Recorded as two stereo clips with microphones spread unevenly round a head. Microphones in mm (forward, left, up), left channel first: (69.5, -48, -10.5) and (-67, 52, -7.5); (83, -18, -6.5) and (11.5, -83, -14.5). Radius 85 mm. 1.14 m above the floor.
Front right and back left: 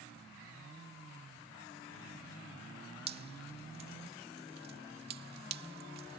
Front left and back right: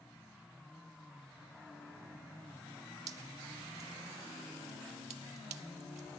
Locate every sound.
3.1 s dripping: straight behind